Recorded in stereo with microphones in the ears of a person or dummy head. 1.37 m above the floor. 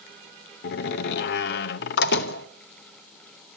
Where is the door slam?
60° left (ahead or behind), 0.9 m.